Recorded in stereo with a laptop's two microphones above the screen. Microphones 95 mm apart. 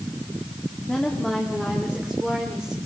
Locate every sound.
0.9 s a woman speaking: 10° left (ahead or behind), 2.0 m; by 2.8 s centre (ahead or behind), 3.5 m